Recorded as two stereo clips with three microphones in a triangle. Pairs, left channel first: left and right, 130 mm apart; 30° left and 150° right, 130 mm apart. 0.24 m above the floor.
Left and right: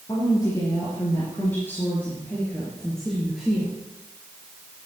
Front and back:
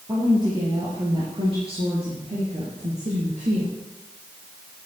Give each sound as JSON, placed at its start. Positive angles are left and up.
{"t": 0.1, "sound": "a woman speaking", "azimuth_deg": 150, "distance_m": 4.5}